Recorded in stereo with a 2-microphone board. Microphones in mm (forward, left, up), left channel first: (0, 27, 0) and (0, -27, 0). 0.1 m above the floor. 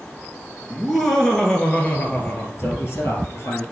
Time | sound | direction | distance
0.7 | laughter | centre (ahead or behind) | 1.9 m
2.6 | a man speaking | 55° left (ahead or behind) | 2 m